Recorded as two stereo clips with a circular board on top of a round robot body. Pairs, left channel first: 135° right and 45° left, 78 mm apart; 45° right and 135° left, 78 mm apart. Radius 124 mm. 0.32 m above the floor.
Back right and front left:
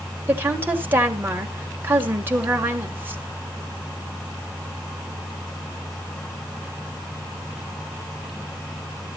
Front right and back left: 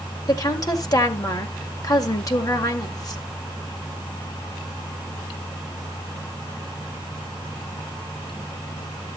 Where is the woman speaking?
15° right, 2 m.